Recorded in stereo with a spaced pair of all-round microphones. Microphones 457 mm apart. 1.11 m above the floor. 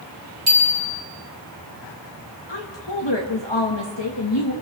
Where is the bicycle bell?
60° right (ahead or behind), 4 m.